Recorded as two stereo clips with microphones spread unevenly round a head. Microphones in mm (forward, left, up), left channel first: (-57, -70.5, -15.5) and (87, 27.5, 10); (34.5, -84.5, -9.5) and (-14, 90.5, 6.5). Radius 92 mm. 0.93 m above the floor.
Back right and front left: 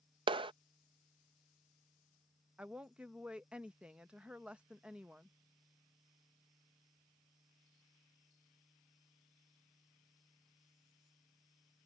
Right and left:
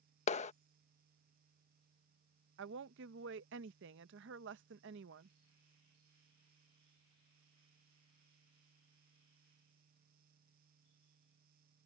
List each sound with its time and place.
0.3 s a clap: 30° right
2.6 s a woman speaking: 125° left